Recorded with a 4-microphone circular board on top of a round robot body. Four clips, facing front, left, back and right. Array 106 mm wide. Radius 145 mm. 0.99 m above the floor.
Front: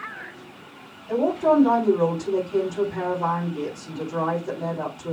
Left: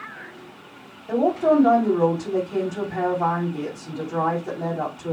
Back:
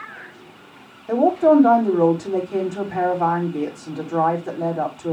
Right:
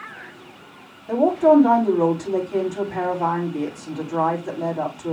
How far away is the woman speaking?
About 7.5 m.